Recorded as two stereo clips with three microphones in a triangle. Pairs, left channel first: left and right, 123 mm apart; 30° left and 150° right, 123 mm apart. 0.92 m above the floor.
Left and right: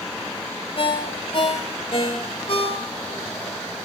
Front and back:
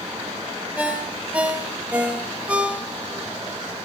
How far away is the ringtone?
About 1.4 m.